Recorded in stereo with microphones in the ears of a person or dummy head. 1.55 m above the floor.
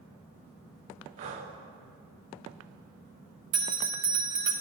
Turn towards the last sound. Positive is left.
turn(degrees=-40)  # may be behind; listen again after turning